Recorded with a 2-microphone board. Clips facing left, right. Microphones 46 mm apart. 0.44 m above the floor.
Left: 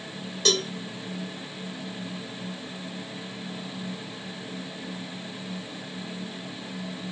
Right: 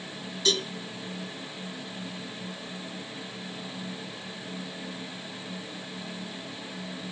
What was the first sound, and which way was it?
A cowbell, 60° left (ahead or behind).